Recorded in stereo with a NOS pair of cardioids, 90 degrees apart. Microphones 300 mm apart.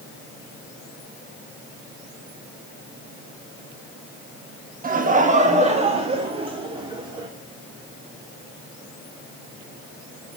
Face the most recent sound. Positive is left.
turn(degrees=-15)